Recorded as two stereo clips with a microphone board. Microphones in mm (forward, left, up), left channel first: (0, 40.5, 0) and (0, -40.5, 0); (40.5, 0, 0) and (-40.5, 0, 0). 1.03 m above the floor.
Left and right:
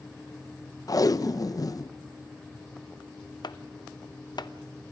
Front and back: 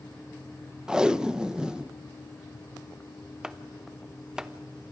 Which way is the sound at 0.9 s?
105° left.